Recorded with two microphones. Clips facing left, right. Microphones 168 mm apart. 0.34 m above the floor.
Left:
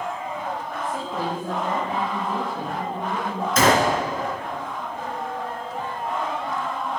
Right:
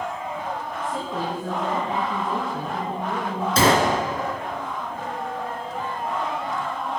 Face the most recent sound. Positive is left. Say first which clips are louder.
# even
turn(degrees=-30)  # may be behind; listen again after turning